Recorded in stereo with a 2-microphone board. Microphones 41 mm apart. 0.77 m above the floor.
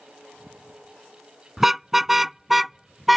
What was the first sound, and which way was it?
A car horn, 10° right (ahead or behind).